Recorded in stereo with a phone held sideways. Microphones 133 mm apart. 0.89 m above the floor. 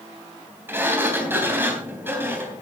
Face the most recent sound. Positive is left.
turn(degrees=-15)  # may be behind; listen again after turning